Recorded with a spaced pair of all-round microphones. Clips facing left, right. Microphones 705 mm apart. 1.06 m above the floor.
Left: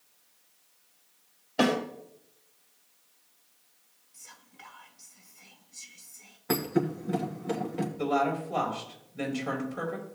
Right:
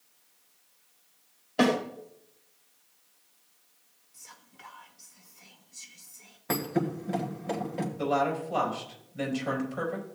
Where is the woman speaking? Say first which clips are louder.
Even; 10° right (ahead or behind), 4.5 m.